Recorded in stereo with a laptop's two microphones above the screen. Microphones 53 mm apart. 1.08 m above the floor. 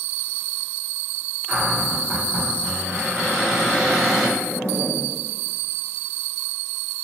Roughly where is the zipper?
Left.